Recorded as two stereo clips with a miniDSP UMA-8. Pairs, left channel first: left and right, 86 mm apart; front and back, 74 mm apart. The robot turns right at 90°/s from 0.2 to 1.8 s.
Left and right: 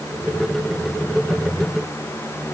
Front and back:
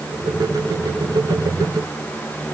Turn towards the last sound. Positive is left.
No sound to turn to.